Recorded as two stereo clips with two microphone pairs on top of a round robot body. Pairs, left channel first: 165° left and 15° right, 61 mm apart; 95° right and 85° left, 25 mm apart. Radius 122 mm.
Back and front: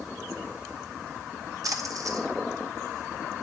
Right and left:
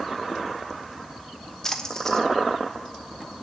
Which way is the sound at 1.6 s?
15° right.